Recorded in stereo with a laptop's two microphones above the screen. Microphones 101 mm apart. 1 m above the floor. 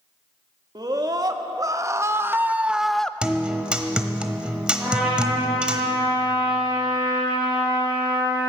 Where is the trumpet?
15° right (ahead or behind), 6.5 m.